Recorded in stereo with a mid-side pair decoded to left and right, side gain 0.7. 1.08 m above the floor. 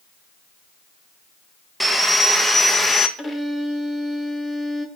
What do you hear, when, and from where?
1.8 s sawing: 5° right, 0.8 m
3.2 s a violin: 5° left, 1.1 m